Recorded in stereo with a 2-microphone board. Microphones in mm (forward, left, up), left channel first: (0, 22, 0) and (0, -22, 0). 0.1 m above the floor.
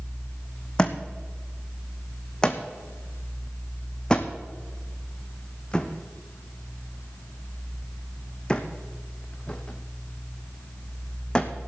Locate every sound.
0.8 s a thud: 20° left (ahead or behind), 1.5 m